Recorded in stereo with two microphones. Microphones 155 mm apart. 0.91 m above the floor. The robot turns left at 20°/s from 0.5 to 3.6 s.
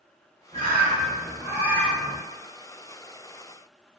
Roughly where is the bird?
Behind right.